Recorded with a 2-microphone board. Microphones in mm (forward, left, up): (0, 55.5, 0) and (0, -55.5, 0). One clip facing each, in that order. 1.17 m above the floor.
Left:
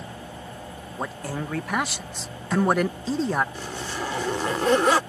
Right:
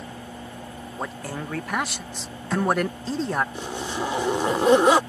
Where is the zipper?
20° right (ahead or behind).